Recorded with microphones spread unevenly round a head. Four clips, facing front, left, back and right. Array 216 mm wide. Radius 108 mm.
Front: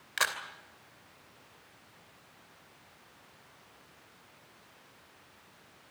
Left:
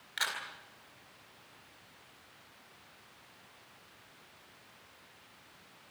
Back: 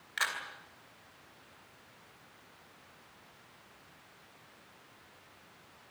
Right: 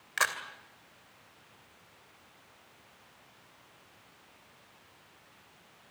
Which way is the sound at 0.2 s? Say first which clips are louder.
Right 7 dB, front 3 dB; 45° right.